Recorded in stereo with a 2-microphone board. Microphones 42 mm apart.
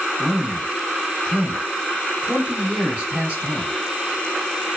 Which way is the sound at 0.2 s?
30° right (ahead or behind).